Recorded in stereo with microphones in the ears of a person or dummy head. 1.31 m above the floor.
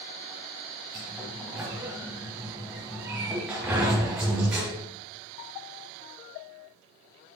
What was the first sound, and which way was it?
A sliding door, 5° right (ahead or behind).